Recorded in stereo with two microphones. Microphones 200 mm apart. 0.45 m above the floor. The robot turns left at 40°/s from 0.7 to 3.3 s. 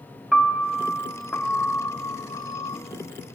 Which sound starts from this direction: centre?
A piano, at 0.3 s.